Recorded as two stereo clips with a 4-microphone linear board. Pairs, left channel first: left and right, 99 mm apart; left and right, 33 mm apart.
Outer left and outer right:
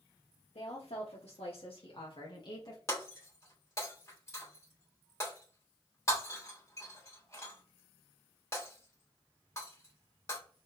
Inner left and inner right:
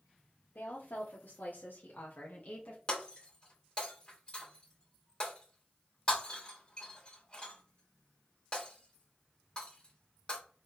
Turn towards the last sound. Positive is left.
turn(degrees=30)  # may be behind; listen again after turning